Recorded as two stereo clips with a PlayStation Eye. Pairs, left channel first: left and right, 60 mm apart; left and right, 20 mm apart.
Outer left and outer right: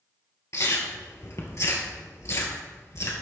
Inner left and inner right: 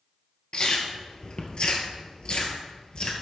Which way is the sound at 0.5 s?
50° left (ahead or behind).